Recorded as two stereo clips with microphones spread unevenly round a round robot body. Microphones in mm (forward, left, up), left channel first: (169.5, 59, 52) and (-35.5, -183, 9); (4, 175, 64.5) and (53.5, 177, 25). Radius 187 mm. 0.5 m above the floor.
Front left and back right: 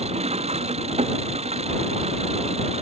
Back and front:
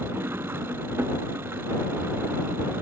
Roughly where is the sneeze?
I don't hear a sneeze.